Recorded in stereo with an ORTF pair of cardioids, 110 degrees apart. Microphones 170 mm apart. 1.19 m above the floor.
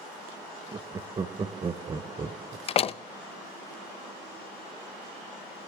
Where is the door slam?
35° left, 0.6 m.